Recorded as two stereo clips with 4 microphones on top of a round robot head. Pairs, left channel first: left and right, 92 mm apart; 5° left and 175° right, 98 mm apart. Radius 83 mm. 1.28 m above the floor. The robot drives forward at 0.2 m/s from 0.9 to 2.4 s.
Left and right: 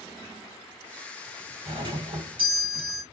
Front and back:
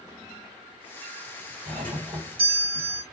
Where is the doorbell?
130° right, 3.5 m.